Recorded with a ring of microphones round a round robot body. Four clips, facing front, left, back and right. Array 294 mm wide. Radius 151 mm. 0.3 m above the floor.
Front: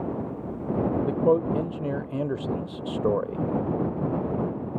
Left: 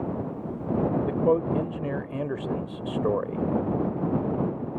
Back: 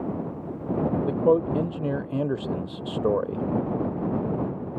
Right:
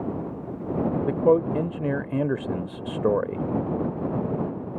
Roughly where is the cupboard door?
I don't hear a cupboard door.